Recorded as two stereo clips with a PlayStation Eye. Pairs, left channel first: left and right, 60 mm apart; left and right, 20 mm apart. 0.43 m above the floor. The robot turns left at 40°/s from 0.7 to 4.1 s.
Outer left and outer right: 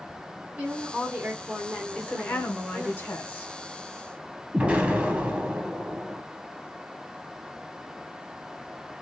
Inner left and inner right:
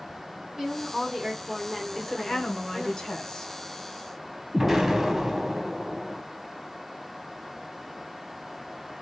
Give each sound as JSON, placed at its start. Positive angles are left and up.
{"t": 0.6, "sound": "a woman speaking", "side_deg": -20, "distance_m": 1.3}
{"t": 1.9, "sound": "a woman speaking", "azimuth_deg": 145, "distance_m": 0.9}
{"t": 4.5, "sound": "an explosion", "side_deg": -20, "distance_m": 0.7}